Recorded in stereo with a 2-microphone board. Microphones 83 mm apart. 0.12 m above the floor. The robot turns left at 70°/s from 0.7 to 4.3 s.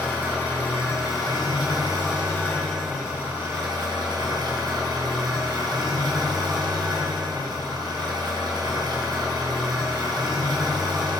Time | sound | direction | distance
0.0 | an engine running | 155° left | 1.3 m